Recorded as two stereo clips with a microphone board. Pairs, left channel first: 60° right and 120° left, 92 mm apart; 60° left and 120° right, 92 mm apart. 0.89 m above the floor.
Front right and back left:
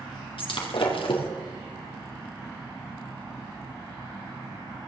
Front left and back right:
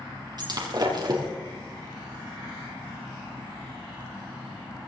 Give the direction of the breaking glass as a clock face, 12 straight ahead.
3 o'clock.